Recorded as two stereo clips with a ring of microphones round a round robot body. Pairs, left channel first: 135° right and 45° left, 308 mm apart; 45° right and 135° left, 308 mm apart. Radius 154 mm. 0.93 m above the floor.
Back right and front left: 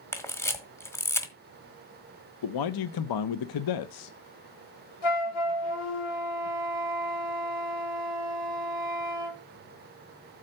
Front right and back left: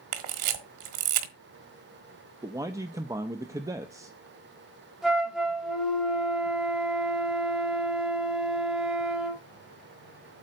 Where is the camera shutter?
145° left, 1.5 m.